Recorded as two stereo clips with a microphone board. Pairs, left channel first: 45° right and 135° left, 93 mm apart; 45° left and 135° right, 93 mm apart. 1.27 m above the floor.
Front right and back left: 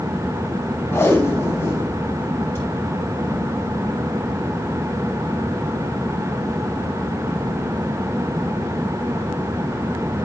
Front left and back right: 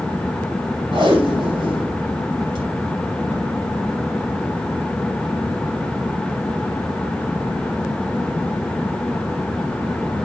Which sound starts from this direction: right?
Tape being pulled, at 0.9 s.